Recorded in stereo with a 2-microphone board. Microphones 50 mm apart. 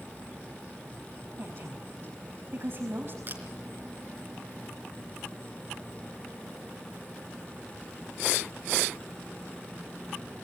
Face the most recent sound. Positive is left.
turn(degrees=-45)  # may be behind; listen again after turning